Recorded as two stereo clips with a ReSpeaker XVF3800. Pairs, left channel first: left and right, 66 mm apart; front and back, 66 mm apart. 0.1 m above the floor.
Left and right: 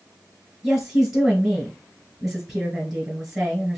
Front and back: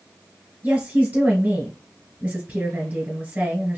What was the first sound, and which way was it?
A woman speaking, 165° right.